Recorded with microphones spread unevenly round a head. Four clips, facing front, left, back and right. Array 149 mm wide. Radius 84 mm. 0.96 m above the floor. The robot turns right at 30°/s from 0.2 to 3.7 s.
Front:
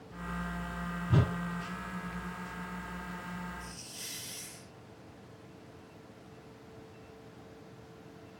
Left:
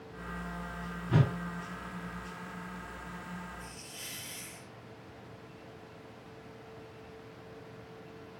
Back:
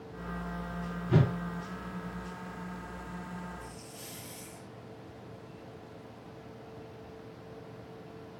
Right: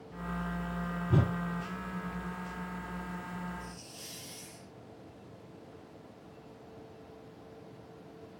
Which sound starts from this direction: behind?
A whoosh, at 1.1 s.